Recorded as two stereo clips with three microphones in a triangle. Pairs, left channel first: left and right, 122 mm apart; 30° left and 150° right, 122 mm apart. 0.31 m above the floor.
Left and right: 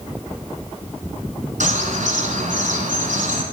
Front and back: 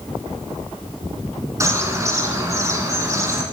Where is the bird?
85° right, 1.4 m.